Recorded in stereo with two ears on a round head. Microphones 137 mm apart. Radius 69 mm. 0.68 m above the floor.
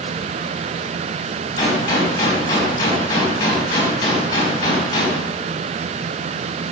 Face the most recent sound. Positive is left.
turn(degrees=25)  # may be behind; listen again after turning